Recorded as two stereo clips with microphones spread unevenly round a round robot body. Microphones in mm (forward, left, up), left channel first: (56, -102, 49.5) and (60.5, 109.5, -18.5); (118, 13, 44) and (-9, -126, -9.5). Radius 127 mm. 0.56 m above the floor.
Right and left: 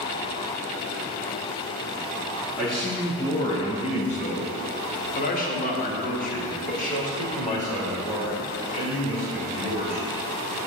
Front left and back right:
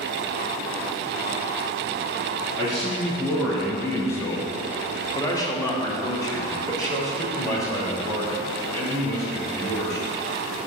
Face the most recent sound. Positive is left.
turn(degrees=-30)